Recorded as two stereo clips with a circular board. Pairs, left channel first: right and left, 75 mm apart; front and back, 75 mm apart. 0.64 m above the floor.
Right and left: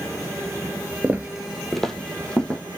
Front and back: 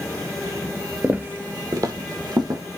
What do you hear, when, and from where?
1.0 s footsteps: 130° left, 0.6 m; by 2.6 s 165° right, 1.6 m